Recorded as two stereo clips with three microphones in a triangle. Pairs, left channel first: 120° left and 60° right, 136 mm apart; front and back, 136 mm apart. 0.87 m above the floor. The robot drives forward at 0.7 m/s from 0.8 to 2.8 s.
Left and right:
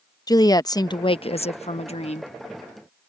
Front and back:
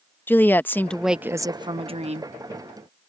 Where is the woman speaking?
70° left; by 2.3 s 155° left.